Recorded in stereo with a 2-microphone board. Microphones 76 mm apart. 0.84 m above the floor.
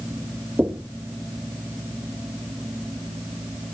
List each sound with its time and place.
0.6 s knocking: 15° right (ahead or behind), 1.5 m